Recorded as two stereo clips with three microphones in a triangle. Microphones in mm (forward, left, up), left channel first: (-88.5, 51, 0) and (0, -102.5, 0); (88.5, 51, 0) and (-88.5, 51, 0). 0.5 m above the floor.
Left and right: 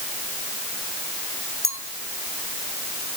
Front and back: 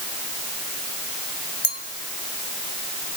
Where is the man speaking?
No man speaking in this recording.